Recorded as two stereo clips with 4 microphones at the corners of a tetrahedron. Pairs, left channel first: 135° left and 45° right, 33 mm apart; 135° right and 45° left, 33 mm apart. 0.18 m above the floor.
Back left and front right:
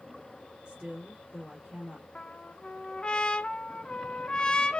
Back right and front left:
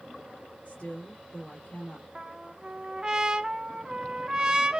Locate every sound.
0.7 s a woman speaking: 110° right, 3 m
2.1 s a trumpet: 95° left, 0.5 m